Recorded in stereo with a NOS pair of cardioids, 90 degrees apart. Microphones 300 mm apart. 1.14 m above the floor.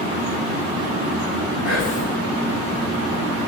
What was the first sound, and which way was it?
Whispering, 60° left.